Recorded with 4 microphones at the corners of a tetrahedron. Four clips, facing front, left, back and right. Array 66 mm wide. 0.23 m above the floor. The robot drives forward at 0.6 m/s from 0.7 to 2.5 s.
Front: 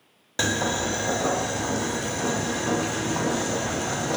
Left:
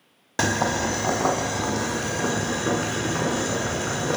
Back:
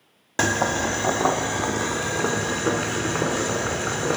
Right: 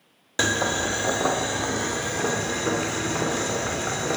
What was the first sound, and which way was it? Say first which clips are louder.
Boiling: left 1 dB, back 3 dB; 145° left.